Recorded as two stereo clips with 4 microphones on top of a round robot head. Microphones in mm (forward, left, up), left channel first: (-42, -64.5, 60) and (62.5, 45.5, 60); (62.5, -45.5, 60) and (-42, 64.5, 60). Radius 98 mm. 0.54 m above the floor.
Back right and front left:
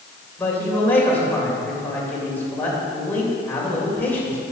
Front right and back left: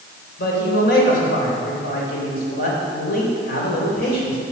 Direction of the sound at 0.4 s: 55° right.